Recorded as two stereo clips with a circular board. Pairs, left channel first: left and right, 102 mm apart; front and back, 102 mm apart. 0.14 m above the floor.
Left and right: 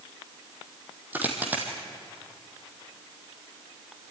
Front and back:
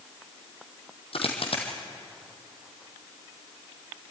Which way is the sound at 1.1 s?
20° right.